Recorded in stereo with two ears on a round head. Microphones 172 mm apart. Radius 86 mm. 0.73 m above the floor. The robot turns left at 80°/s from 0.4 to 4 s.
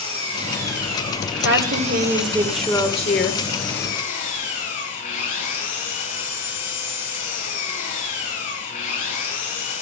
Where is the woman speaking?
85° right, 2.0 m; by 3.4 s 115° left, 2.0 m.